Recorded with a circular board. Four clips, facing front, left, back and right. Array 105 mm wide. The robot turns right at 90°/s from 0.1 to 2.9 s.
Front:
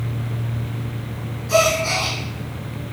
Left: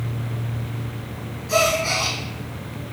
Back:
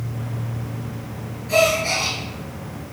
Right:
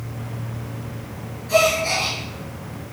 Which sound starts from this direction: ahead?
A gasp, at 1.5 s.